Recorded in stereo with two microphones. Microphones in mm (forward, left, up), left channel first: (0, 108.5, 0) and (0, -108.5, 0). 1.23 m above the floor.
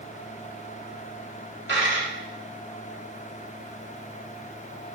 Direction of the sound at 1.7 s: 60° right (ahead or behind).